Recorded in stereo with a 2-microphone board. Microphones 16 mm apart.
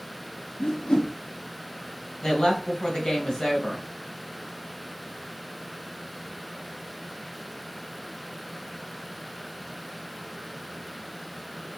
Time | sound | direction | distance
0.6 | a whoosh | 60° left (ahead or behind) | 0.6 m
2.2 | a woman speaking | 45° left (ahead or behind) | 1.9 m